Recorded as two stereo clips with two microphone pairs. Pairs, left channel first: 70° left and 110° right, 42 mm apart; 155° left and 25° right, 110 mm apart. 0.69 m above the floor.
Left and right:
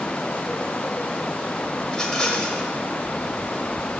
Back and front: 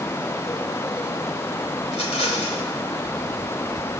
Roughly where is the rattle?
Behind left.